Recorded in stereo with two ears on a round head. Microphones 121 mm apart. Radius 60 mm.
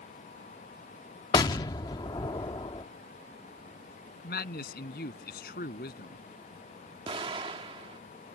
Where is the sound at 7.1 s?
40° right (ahead or behind).